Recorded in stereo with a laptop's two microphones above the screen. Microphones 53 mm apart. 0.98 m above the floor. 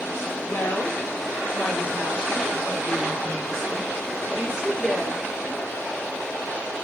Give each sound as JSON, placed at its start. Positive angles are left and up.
{"t": 0.5, "sound": "a woman speaking", "side_deg": 50, "distance_m": 2.0}